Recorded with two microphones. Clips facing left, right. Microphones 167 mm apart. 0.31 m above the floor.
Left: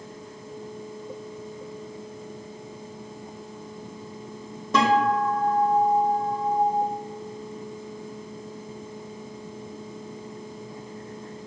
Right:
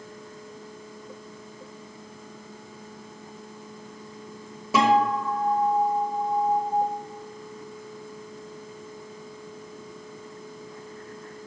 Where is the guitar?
10° right (ahead or behind), 0.9 m.